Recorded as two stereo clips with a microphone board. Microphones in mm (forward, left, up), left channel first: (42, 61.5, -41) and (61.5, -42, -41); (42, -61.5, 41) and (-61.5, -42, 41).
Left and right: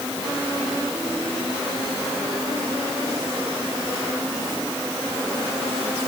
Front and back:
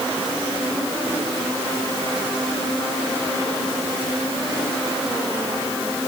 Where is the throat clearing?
No throat clearing in this recording.